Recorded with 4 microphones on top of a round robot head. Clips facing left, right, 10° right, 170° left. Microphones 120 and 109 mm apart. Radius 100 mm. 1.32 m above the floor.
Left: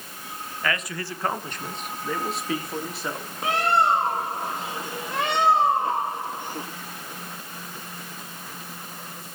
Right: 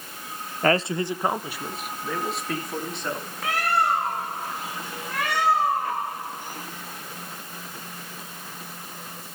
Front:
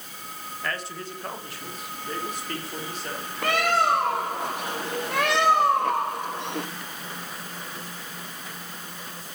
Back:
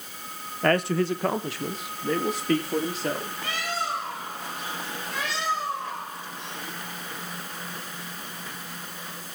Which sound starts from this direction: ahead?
A bird, at 3.4 s.